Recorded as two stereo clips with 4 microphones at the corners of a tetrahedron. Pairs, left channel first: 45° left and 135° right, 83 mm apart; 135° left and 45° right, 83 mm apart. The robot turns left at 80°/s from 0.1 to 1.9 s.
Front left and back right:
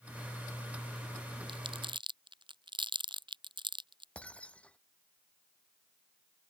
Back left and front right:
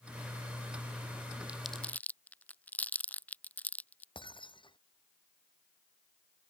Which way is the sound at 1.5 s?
120° right.